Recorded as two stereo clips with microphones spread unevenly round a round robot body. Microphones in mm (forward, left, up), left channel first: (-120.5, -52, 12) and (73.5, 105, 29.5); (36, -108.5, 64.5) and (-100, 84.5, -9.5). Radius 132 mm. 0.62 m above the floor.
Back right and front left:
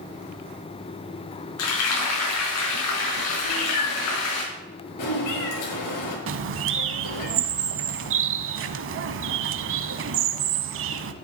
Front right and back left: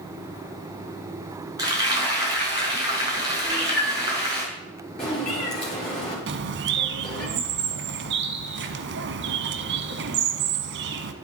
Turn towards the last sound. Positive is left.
turn(degrees=70)